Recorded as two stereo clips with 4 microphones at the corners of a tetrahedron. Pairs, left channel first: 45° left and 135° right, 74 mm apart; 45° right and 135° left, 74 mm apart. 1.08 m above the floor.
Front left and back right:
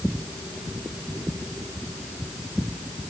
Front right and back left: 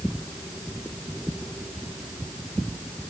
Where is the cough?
No cough in this recording.